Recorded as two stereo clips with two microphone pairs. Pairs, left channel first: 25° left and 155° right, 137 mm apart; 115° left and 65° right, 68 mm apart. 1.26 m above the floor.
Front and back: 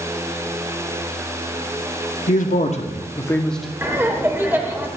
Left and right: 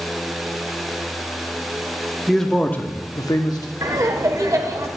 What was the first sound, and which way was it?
A man speaking, 25° left.